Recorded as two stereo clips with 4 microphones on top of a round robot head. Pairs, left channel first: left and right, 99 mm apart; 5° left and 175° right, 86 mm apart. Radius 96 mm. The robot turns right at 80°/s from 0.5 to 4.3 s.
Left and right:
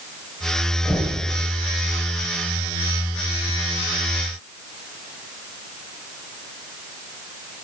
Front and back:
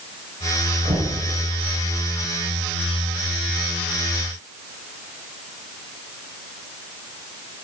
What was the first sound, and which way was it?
Knocking, 175° left.